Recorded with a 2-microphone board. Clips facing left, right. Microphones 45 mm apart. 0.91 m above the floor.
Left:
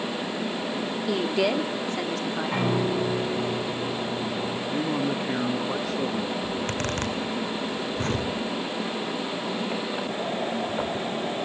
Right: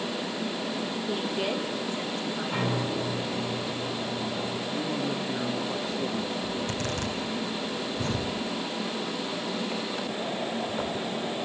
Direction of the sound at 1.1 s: 70° left (ahead or behind).